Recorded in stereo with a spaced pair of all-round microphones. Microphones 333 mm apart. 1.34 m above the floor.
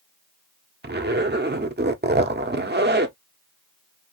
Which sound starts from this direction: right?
A zipper, at 0.8 s.